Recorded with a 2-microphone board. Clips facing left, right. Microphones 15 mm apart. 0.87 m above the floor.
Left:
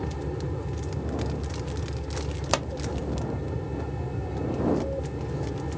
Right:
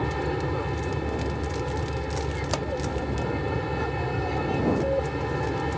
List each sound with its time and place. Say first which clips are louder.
0.0 s an aircraft: right 5 dB; 50° right (ahead or behind)
2.5 s a pop: left 4 dB; 25° left (ahead or behind)